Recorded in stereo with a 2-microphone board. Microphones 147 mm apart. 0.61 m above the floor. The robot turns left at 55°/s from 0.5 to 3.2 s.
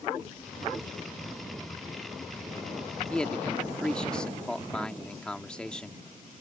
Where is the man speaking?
10° left (ahead or behind); by 6.0 s 5° left (ahead or behind).